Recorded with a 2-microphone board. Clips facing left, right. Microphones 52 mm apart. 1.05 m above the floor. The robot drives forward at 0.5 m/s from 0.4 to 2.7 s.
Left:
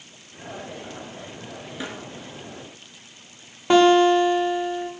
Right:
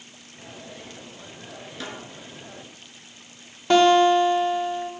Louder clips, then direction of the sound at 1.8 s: Left 2 dB; 20° left (ahead or behind).